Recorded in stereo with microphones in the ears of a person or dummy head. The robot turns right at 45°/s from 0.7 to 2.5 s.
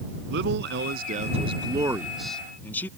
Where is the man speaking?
70° right; by 2.9 s 10° left.